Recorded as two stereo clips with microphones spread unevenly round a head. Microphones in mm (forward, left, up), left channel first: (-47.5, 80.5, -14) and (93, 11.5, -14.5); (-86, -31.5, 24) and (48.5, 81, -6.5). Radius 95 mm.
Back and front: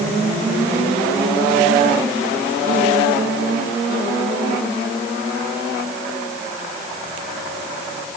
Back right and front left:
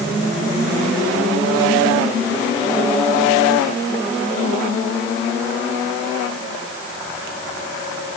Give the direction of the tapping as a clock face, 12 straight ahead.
No tapping in this recording.